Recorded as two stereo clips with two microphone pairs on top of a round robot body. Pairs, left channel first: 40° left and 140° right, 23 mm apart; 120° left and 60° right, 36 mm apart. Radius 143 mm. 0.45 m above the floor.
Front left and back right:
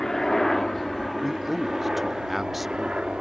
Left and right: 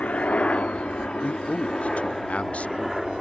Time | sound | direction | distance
0.0 | a helicopter | 110° left | ?
1.2 | a man speaking | 145° left | ?